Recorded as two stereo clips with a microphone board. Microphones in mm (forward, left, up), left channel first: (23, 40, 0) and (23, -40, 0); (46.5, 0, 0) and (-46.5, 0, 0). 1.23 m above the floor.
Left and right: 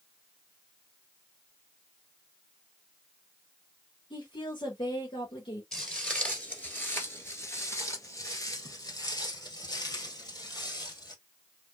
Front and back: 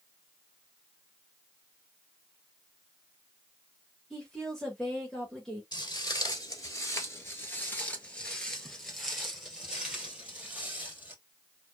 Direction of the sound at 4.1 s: 85° left.